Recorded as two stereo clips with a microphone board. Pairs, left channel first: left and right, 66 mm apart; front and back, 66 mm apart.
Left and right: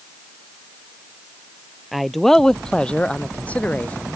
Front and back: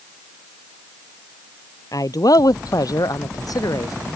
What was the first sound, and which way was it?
A man speaking, straight ahead.